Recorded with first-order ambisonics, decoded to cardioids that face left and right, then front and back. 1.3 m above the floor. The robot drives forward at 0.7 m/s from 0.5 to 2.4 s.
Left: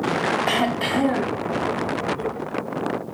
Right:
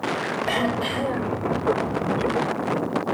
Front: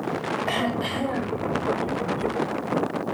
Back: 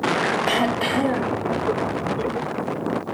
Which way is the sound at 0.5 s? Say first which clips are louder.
Left 2 dB, back 5 dB; 130° left.